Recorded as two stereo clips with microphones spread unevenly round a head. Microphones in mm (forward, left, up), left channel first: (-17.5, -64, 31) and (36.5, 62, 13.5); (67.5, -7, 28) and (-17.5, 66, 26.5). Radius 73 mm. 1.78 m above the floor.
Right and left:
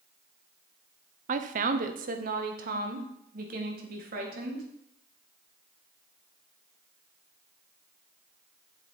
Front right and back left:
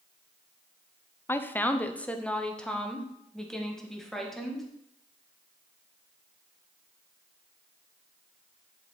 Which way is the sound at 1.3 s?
30° left.